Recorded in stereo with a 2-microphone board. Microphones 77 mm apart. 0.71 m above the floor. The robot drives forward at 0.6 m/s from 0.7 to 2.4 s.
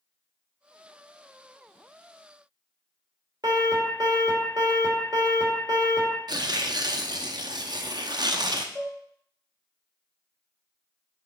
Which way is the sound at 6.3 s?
60° right (ahead or behind).